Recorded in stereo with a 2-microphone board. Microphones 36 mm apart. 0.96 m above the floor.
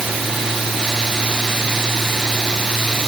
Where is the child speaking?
I don't hear a child speaking.